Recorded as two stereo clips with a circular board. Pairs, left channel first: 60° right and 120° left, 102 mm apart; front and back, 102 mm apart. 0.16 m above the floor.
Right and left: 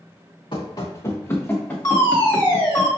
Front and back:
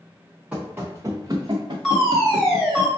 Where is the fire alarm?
90° right, 2 m.